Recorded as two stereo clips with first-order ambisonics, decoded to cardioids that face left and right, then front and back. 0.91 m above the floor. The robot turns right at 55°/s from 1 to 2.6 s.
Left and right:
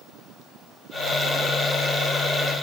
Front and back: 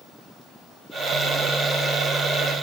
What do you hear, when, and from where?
Only background noise.